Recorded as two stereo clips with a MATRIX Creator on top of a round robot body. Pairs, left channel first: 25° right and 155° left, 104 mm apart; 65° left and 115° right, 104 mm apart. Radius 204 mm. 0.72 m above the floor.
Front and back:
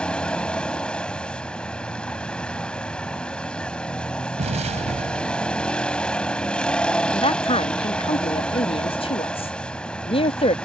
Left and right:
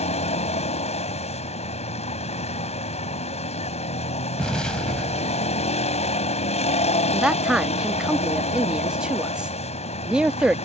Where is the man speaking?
30° right.